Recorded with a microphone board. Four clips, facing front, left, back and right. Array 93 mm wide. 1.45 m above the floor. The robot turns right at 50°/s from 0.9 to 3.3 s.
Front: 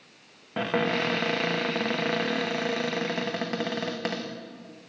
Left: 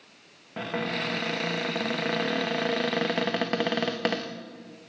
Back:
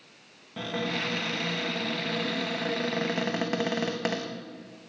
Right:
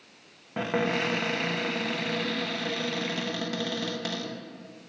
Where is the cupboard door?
20° right, 0.8 m; by 4.3 s 100° left, 0.8 m.